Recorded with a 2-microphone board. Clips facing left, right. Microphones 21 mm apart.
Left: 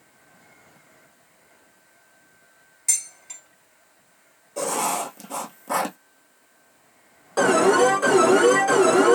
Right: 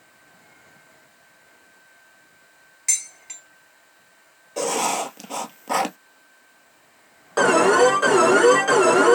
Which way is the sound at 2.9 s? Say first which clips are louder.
Right 1 dB; 30° right (ahead or behind).